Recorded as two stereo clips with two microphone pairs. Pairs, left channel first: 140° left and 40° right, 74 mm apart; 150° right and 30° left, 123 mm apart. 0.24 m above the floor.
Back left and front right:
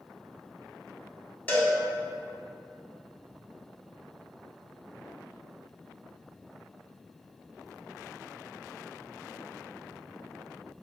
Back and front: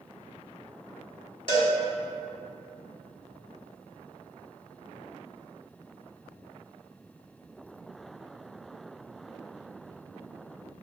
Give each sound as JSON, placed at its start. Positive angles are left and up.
{"t": 1.5, "sound": "a cowbell", "azimuth_deg": -165, "distance_m": 0.9}